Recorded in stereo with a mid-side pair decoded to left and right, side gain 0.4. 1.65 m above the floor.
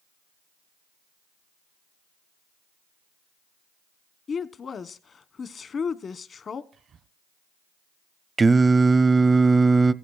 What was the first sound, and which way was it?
A woman speaking, 50° left.